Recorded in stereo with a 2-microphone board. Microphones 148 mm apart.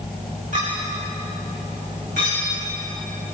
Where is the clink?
65° right (ahead or behind), 8.5 m.